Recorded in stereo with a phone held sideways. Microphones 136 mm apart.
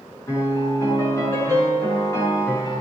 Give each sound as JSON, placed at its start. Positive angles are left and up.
{"t": 0.3, "sound": "a piano", "side_deg": 25, "distance_m": 7.5}